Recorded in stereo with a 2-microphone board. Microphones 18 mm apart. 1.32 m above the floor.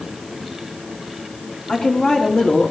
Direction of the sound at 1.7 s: 80° left.